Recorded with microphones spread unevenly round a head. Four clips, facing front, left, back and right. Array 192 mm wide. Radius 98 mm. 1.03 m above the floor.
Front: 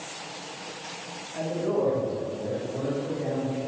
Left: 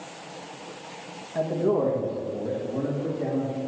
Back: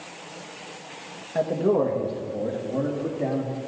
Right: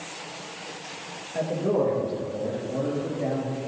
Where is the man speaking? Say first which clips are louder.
Left 1 dB, back 5 dB; 175° left, 1.5 m; by 3.6 s straight behind, 3 m.